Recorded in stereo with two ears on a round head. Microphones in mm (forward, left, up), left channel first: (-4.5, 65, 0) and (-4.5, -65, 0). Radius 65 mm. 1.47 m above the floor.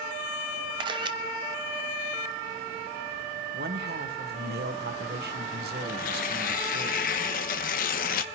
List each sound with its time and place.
0.8 s a camera shutter: 30° right (ahead or behind), 0.7 m
3.5 s a man speaking: 75° right (ahead or behind), 1.4 m
5.9 s tearing paper: 65° left (ahead or behind), 0.9 m